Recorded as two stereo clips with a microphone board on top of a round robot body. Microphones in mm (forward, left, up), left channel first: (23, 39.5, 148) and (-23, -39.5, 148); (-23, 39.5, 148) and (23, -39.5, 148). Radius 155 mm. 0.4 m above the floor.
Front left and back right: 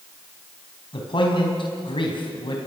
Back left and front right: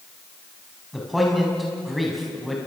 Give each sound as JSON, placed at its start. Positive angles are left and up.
{"t": 0.9, "sound": "a man speaking", "azimuth_deg": 30, "distance_m": 4.0}